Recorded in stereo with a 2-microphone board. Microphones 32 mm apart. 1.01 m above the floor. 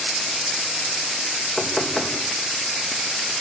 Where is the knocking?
20° left (ahead or behind), 4 m.